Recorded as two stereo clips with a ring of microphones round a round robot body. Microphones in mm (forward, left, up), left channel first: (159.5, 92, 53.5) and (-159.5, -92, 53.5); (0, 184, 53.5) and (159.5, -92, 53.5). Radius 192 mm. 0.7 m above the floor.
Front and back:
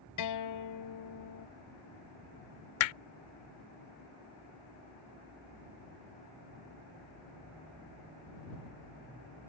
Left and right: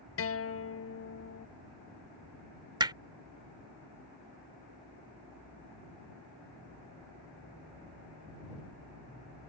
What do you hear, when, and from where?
0.2 s a guitar: 75° left
2.8 s hammering: 20° left